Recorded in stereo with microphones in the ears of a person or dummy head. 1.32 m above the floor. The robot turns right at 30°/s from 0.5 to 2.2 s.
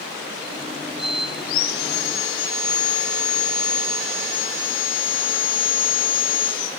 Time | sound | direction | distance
1.4 | sawing | 50° left (ahead or behind) | 1.9 m